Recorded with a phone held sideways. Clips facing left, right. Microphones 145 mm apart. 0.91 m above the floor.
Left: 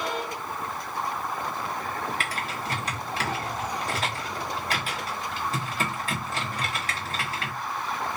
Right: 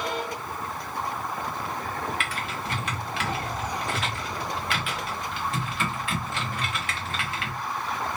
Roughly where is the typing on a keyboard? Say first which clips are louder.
Even; left.